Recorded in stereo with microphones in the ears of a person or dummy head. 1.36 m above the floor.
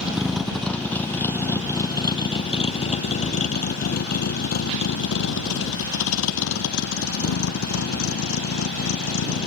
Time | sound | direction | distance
0.0 | a vehicle | centre (ahead or behind) | ?